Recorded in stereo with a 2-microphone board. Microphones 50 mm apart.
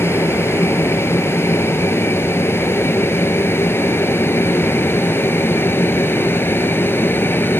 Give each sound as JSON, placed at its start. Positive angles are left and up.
{"t": 0.0, "sound": "an aircraft", "side_deg": 60}